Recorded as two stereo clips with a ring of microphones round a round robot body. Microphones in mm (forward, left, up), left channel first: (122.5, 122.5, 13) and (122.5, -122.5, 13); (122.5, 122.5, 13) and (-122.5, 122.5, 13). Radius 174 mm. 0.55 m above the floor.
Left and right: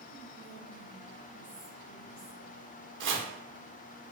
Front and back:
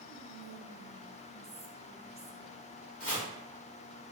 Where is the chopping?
50° right, 0.8 m.